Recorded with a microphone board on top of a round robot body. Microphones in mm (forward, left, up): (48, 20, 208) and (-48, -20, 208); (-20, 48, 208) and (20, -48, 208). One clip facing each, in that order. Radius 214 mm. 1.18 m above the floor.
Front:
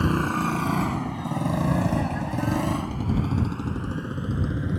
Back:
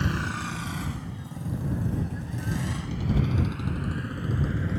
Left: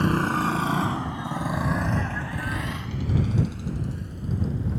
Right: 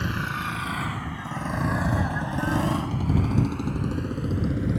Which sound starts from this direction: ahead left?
A motorcycle, at 0.0 s.